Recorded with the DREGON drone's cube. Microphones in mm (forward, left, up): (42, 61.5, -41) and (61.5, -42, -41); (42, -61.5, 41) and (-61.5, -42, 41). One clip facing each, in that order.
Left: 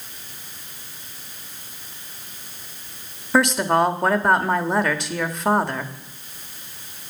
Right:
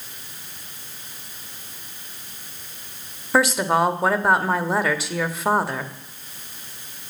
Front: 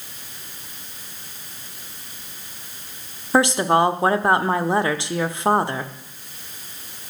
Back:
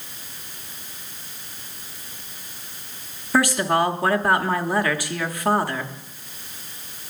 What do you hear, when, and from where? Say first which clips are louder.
3.3 s a woman speaking: left 1 dB, front 3 dB; straight ahead, 0.8 m